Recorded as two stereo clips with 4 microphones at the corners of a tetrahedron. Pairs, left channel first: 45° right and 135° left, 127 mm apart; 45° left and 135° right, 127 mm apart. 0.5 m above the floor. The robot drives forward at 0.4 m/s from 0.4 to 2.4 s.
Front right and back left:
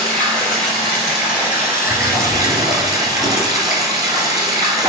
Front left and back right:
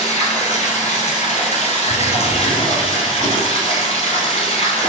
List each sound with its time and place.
0.0 s running water: 40° left, 1.4 m; by 4.9 s 75° left, 1.0 m
1.9 s a drawer: 75° left, 1.6 m; by 4.9 s 80° left, 1.5 m